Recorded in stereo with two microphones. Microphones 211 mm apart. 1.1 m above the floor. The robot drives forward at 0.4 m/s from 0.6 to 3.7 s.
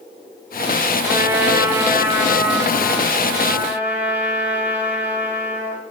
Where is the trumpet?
15° right (ahead or behind), 1.0 m; by 5.8 s 10° right (ahead or behind), 1.9 m.